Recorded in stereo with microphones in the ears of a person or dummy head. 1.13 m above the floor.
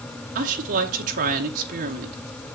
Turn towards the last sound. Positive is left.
turn(degrees=-40)  # may be behind; listen again after turning